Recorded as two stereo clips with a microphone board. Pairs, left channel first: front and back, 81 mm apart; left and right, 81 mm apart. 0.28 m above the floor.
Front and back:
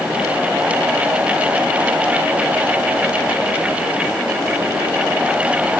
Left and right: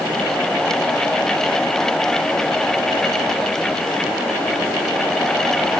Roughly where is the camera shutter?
I don't hear a camera shutter.